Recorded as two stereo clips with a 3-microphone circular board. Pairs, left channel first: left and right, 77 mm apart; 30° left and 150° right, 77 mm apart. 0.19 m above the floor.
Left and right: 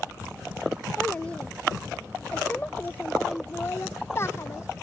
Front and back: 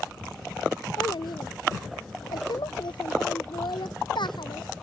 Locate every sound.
1.0 s a child speaking: 15° left; by 4.8 s 40° left